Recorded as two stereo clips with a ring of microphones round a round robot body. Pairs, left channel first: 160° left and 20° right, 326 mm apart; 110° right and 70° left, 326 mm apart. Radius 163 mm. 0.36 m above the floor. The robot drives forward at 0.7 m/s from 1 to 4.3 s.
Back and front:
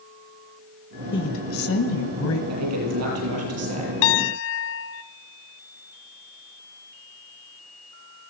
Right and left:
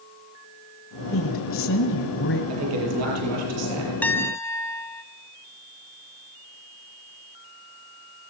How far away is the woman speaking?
About 1.4 m.